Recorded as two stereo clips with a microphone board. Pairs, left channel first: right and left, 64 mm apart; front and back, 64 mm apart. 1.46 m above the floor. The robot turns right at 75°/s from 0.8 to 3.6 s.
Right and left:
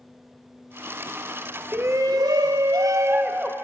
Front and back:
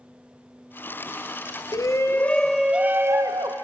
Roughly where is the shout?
Ahead left.